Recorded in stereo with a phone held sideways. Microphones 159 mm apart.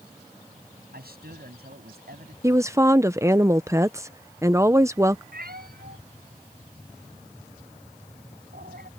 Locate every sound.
0.9 s a man speaking: 85° right
2.4 s a woman speaking: 20° right (ahead or behind)
5.3 s a cat meowing: 75° right (ahead or behind)